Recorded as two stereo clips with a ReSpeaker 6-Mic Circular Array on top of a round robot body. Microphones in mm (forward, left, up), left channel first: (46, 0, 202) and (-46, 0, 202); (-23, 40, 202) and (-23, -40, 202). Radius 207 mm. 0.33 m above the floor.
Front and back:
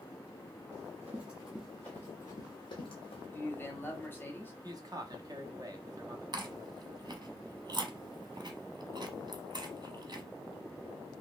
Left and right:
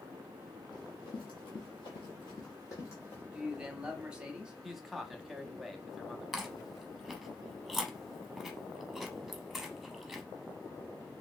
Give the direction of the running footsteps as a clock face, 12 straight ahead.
8 o'clock.